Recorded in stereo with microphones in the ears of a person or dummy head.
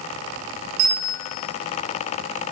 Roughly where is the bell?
Right.